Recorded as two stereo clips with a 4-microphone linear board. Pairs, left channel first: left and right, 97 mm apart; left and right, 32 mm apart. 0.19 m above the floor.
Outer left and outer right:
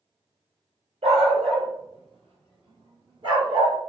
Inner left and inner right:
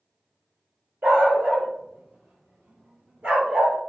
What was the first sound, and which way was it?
A dog barking, 75° right (ahead or behind).